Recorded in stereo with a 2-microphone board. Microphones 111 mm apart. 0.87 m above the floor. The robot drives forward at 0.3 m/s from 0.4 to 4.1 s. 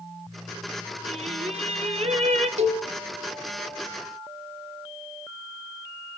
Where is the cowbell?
80° right, 2 m.